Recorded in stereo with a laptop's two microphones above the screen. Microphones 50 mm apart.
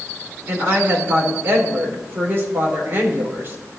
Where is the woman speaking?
50° right (ahead or behind), 3.5 m.